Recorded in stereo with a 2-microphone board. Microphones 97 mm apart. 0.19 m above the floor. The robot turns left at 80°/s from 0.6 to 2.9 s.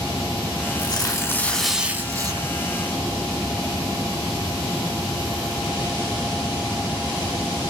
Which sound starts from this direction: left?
Tearing paper, at 0.8 s.